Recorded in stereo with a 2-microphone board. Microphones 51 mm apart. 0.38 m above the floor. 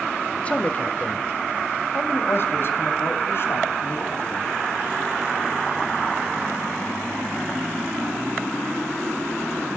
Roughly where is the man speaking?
Left.